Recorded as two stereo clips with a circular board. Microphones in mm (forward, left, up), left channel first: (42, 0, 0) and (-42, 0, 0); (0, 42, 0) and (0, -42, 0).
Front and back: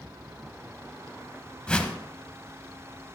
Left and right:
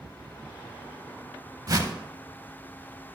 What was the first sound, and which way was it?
A whoosh, 75° right.